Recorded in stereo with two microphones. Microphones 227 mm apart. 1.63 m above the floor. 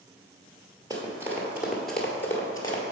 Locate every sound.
0.9 s running footsteps: 15° right (ahead or behind), 1.9 m; by 2.8 s 20° left (ahead or behind), 1.7 m